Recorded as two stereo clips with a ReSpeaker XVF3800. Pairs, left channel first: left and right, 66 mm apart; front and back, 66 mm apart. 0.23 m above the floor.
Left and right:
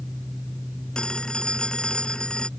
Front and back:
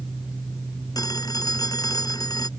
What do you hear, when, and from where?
0.9 s a phone ringing: 15° left